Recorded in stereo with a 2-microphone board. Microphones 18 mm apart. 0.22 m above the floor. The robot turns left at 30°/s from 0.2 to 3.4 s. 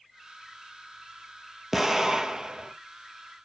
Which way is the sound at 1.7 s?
20° right.